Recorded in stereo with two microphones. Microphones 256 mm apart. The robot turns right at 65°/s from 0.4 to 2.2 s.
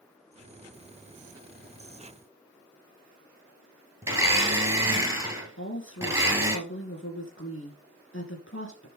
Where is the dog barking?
No dog barking in this recording.